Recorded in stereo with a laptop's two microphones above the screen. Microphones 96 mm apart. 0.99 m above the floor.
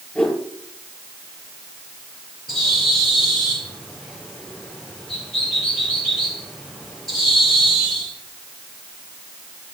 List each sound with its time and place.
0.1 s a whoosh: 20° left (ahead or behind), 5.5 m
2.5 s a bird: 5° left (ahead or behind), 5.5 m